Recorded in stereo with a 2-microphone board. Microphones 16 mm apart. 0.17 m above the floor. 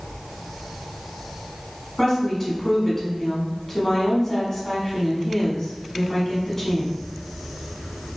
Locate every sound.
2.0 s a woman speaking: 25° left (ahead or behind), 1.2 m